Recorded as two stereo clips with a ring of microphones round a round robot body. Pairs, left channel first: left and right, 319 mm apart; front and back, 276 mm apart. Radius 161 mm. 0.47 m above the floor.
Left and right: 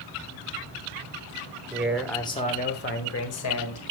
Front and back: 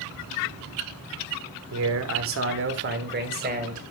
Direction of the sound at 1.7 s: 170° right.